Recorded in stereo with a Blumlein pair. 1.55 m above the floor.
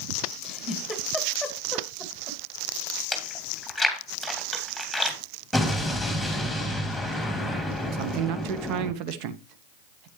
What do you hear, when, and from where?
0.4 s a giggle: straight ahead, 2 m
3.1 s chewing: straight ahead, 2.5 m
5.5 s an explosion: straight ahead, 2.5 m
7.9 s a man speaking: 40° right, 1.0 m